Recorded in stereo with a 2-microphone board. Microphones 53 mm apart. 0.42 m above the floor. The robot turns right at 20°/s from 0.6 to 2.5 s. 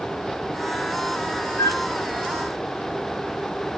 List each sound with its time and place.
1.6 s a flute: 55° left (ahead or behind), 5 m; by 1.8 s 50° left (ahead or behind), 5 m